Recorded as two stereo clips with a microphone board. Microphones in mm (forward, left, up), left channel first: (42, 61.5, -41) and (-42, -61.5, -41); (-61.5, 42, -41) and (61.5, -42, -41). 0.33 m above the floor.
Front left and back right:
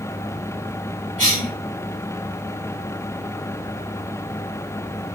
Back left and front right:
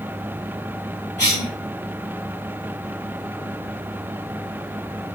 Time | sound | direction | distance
1.2 | a cough | 175° right | 3 m